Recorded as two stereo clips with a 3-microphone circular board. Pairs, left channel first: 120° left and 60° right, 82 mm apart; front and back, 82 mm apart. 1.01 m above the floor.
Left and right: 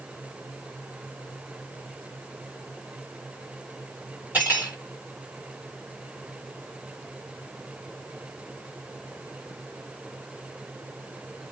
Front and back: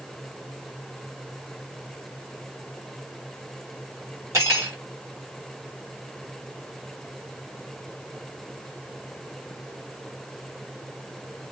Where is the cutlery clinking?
130° right, 2 m.